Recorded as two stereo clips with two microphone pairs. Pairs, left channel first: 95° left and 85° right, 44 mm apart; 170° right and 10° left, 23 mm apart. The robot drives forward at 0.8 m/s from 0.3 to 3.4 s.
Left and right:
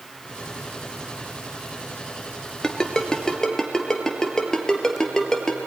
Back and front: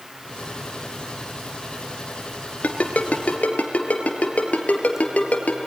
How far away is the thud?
I don't hear a thud.